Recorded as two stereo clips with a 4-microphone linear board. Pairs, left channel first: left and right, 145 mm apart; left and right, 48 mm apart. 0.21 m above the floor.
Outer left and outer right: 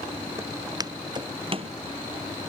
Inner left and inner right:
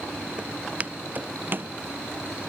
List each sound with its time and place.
0.4 s footsteps: 20° right (ahead or behind); by 1.7 s 45° right (ahead or behind)